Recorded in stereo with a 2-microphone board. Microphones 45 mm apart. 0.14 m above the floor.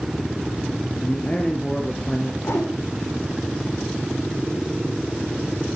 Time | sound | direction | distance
1.0 | a man speaking | 30° left (ahead or behind) | 3 m
2.4 | a whoosh | 65° left (ahead or behind) | 5.5 m